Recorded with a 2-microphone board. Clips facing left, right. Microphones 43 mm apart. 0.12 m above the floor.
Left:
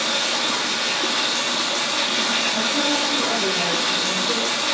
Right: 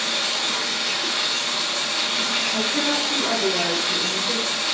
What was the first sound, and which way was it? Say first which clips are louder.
Running water: left 2 dB; 60° left (ahead or behind).